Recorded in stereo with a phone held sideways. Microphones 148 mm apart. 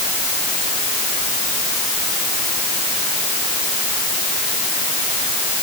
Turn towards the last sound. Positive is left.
No sound to turn to.